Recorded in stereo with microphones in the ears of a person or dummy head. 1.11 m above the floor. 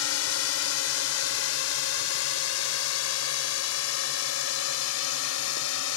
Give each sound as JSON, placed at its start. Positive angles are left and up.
{"t": 0.0, "sound": "a drone", "side_deg": 75}